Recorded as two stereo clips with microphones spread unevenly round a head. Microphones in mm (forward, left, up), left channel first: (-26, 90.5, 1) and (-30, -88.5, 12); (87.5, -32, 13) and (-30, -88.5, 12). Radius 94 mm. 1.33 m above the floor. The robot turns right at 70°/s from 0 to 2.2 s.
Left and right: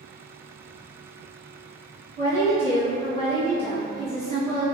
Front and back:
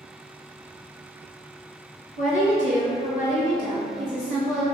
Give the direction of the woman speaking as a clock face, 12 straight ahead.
12 o'clock.